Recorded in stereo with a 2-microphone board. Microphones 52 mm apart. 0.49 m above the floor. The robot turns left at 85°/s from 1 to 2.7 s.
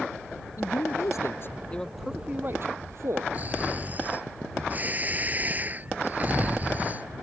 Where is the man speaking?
85° left; by 3.2 s 60° right.